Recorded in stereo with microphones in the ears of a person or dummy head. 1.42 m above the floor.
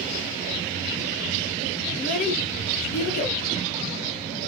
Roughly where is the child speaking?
Left.